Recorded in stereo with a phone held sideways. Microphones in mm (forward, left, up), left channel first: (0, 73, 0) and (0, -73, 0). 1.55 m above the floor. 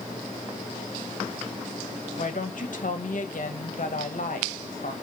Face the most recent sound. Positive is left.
turn(degrees=65)  # may be behind; listen again after turning